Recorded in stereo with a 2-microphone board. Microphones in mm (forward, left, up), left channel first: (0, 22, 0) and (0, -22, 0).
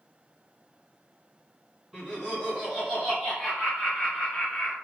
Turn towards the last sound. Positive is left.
turn(degrees=20)  # may be behind; listen again after turning